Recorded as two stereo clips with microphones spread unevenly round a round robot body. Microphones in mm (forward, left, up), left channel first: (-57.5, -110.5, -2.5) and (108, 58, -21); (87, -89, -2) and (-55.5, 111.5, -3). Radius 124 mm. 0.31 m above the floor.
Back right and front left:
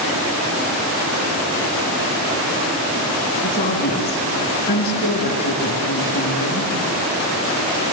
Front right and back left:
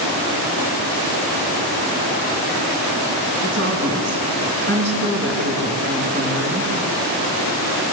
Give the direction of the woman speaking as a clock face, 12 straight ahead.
6 o'clock.